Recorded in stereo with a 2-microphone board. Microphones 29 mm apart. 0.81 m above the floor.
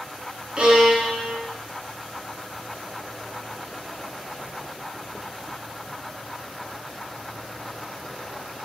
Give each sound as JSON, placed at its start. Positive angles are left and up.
{"t": 0.6, "sound": "a violin", "side_deg": -40, "distance_m": 2.5}